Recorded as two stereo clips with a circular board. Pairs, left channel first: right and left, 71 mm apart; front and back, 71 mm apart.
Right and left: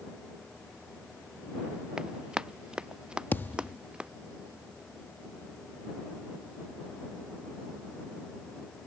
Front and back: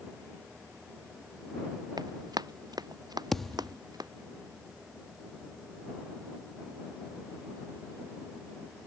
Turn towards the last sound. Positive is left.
turn(degrees=-80)